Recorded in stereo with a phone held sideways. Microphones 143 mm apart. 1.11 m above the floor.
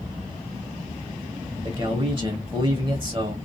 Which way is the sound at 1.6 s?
35° right (ahead or behind).